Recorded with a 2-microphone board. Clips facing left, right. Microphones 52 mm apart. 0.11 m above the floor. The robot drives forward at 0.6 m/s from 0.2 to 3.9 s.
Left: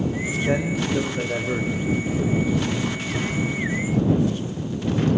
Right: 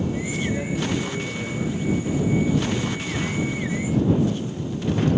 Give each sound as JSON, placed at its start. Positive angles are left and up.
{"t": 0.5, "sound": "a man speaking", "side_deg": 65, "distance_m": 8.5}